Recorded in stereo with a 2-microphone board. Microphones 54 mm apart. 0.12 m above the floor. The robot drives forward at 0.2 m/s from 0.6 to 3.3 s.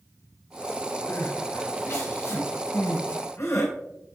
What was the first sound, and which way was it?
Crying, 75° left (ahead or behind).